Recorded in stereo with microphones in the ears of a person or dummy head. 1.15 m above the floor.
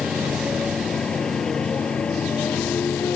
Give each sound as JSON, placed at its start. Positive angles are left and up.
{"t": 0.0, "sound": "a motorcycle", "side_deg": 0}